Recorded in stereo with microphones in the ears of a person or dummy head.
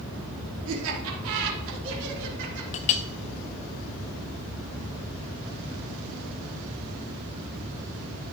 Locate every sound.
0.7 s laughter: 80° right, 3.5 m; by 2.6 s 65° right (ahead or behind), 4 m
2.7 s a clink: 35° left (ahead or behind), 0.6 m